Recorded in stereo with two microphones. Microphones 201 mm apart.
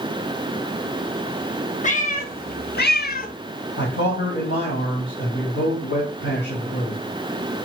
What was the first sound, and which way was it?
A cat meowing, 40° left (ahead or behind).